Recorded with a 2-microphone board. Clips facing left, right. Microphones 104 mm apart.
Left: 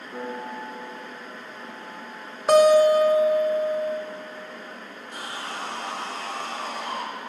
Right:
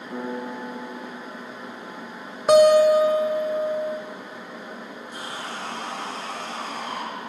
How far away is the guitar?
About 0.8 m.